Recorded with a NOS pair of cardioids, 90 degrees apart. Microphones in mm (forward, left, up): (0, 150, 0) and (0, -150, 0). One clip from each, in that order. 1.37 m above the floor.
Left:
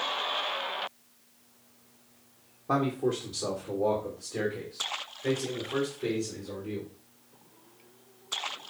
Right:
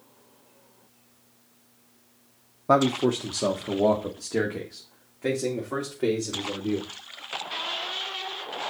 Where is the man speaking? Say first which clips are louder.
Right 7 dB; 45° right, 0.8 m; by 6.9 s 75° right, 3 m.